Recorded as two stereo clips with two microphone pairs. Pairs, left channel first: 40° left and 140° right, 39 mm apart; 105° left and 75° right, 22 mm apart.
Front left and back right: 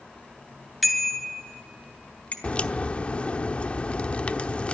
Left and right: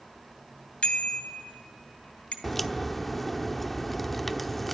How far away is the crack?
About 0.9 m.